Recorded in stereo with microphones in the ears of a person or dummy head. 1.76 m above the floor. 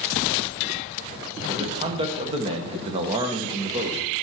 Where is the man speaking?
30° right (ahead or behind), 1.3 m.